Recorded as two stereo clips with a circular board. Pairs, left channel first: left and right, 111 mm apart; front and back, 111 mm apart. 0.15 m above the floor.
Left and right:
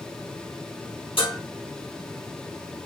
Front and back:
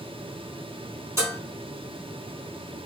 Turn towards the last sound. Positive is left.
turn(degrees=120)